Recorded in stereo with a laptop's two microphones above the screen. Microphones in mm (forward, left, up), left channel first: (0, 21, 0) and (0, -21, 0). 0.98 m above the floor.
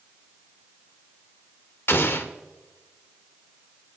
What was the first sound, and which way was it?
An explosion, 60° left (ahead or behind).